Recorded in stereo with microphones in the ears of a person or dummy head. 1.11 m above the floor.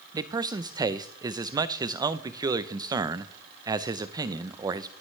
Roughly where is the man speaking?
Centre.